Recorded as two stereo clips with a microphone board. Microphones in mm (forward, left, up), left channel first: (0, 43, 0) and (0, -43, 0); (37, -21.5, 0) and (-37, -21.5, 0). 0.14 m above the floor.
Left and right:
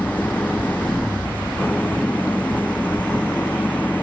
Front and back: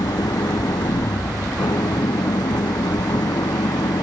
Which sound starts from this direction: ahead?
An engine running, at 0.0 s.